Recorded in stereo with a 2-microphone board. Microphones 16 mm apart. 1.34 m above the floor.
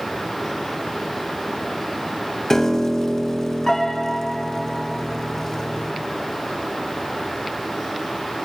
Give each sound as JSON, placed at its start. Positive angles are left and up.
{"t": 2.5, "sound": "a piano", "side_deg": 25, "distance_m": 0.5}